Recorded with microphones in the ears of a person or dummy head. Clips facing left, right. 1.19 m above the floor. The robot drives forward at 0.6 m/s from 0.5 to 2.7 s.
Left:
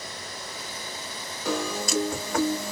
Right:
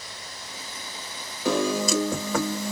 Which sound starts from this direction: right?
A piano, at 1.4 s.